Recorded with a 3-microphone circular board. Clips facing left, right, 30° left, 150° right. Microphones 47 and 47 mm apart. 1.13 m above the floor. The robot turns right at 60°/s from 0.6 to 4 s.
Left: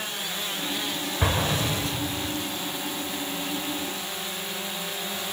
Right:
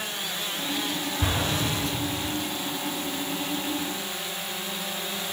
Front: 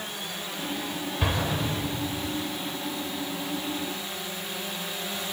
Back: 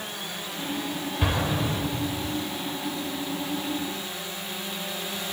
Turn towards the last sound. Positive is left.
turn(degrees=-80)